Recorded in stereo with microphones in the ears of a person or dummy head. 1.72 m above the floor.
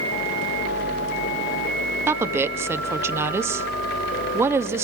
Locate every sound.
2.1 s a woman speaking: 20° right (ahead or behind), 0.8 m